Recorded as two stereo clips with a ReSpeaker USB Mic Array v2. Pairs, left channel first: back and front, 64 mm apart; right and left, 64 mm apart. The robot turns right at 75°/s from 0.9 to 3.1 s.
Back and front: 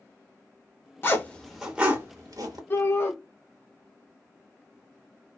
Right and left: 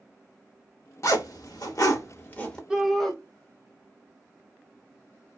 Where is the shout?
165° left, 0.7 m; by 3.1 s 165° right, 0.7 m.